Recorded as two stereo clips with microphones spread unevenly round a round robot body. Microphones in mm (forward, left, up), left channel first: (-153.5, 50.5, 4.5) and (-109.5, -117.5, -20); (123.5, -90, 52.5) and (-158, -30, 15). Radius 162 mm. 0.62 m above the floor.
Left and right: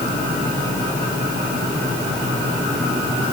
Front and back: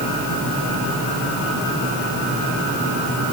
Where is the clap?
No clap in this recording.